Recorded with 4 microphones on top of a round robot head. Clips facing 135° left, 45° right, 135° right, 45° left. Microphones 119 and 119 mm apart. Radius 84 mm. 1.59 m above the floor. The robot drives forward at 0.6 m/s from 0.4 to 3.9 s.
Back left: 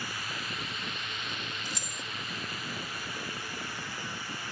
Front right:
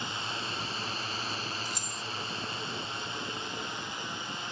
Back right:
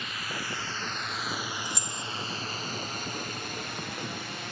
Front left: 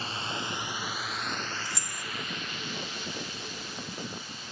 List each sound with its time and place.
0.0 s a drone: 10° left; by 4.5 s 110° right
1.6 s keys jangling: 155° left